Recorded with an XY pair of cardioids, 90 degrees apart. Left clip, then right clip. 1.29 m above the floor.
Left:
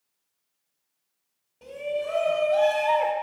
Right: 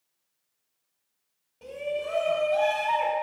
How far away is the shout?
About 1.1 m.